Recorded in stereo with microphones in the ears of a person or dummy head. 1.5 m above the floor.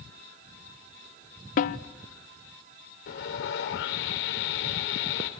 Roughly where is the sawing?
Left.